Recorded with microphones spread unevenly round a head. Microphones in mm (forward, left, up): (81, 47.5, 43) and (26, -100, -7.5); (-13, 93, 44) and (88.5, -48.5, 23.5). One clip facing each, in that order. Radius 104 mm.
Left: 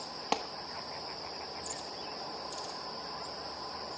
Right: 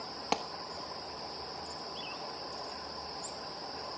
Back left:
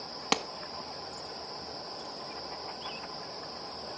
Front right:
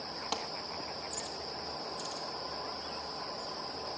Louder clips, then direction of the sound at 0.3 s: Even, back left 8 dB; 160° left.